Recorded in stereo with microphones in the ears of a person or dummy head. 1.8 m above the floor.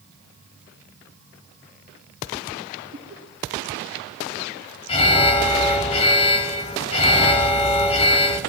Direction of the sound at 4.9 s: 30° left (ahead or behind).